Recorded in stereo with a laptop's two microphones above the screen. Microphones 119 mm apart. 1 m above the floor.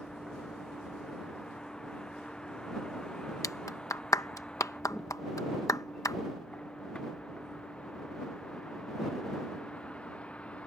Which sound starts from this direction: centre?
A vehicle, at 0.0 s.